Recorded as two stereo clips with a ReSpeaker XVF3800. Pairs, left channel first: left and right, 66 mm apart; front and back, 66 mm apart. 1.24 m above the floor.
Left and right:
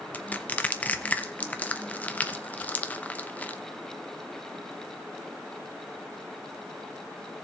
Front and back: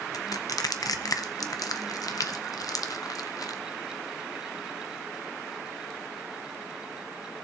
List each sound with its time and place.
0.1 s crushing: 20° left, 0.8 m